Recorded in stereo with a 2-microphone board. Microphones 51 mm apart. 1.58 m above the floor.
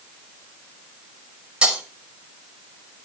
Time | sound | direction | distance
1.6 | breaking glass | 20° right (ahead or behind) | 5.5 m